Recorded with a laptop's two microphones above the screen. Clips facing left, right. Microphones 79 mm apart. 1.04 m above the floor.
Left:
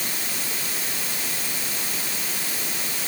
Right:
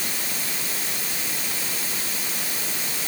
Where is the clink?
No clink in this recording.